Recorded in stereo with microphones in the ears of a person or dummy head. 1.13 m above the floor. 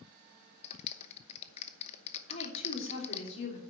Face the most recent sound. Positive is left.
turn(degrees=40)  # may be behind; listen again after turning